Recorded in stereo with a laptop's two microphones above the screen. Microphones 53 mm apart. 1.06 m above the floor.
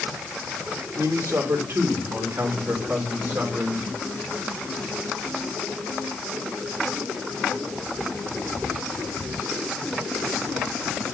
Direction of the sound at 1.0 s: 60° right (ahead or behind).